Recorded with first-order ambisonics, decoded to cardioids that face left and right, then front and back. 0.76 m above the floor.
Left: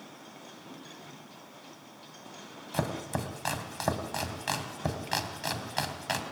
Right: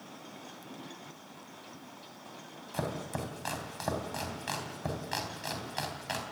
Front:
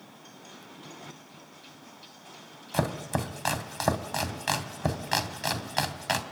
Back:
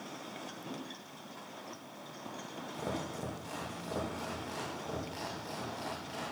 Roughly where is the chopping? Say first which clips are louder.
Left 3 dB, front 10 dB; ahead.